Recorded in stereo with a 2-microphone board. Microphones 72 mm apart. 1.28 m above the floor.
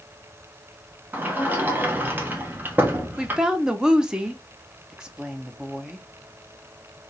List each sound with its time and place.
1.1 s a sliding door: 25° right (ahead or behind), 1.0 m
3.2 s a woman speaking: 10° right (ahead or behind), 0.7 m